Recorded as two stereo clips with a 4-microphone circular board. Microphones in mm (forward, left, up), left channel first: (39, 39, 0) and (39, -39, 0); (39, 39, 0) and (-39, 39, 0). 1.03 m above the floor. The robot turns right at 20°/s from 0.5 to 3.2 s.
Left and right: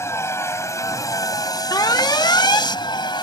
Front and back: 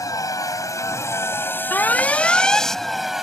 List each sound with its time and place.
0.0 s a vehicle: 40° left; by 3.2 s 95° left
1.7 s an alarm: 60° left; by 2.7 s 80° left